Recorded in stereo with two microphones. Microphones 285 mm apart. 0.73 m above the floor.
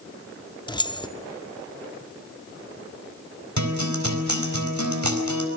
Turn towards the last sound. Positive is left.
turn(degrees=-80)